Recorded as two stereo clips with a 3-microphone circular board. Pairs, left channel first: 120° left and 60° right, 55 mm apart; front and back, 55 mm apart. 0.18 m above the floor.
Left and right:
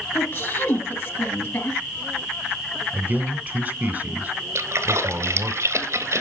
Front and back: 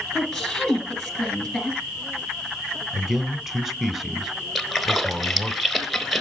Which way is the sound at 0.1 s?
85° left.